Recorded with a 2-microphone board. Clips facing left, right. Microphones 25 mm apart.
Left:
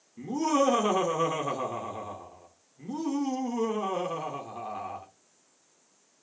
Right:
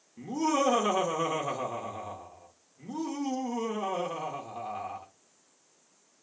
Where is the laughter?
5° left (ahead or behind), 0.9 m.